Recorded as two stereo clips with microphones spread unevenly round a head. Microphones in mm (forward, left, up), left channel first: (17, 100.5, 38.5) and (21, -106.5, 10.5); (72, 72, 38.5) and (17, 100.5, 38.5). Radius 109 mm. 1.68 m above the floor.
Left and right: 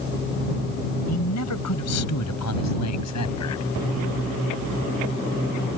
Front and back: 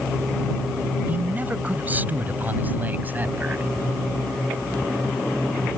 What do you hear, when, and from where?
1.1 s a man speaking: 90° left